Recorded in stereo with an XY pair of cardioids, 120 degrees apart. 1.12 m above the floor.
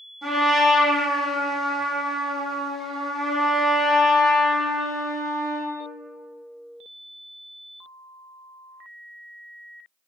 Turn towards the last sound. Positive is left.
turn(degrees=-5)